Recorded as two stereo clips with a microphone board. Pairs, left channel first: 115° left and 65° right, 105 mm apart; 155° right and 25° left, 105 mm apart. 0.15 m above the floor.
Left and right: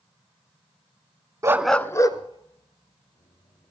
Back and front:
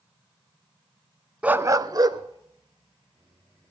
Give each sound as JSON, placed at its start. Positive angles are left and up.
{"t": 1.4, "sound": "a dog barking", "azimuth_deg": -45, "distance_m": 0.6}